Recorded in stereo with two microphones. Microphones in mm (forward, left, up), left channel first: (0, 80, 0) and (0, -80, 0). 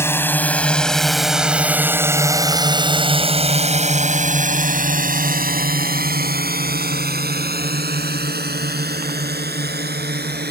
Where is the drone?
15° left (ahead or behind); by 10.5 s 80° right.